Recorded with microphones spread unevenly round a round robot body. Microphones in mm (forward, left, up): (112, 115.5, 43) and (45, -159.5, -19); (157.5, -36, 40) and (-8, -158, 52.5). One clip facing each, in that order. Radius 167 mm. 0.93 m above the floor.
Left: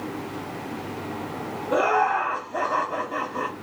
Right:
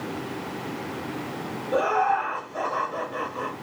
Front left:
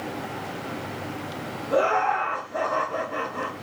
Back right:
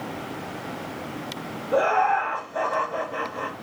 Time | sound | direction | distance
1.7 | laughter | 85° left | 0.6 m